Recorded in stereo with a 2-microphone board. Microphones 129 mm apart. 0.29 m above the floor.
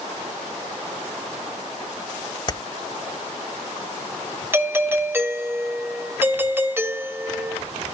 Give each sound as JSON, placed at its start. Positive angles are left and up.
{"t": 2.5, "sound": "keys jangling", "side_deg": 35, "distance_m": 0.9}
{"t": 4.5, "sound": "a doorbell", "side_deg": -15, "distance_m": 1.6}